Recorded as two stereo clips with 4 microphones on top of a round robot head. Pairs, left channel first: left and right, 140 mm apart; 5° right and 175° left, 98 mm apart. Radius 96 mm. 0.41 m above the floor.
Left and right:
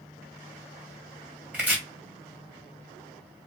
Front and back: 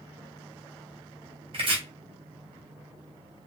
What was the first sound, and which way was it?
Chopping, 170° right.